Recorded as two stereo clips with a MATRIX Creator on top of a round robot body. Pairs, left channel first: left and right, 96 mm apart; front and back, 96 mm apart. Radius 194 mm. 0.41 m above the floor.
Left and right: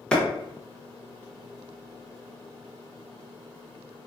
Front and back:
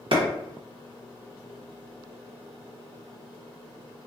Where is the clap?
170° left, 1.1 m.